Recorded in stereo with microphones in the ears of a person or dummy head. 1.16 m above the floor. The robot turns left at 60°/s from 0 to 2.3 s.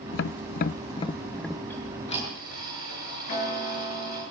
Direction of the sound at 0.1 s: 60° left (ahead or behind).